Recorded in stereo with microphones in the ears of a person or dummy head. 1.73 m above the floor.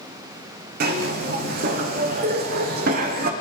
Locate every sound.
0.8 s a zipper: 45° right (ahead or behind), 0.9 m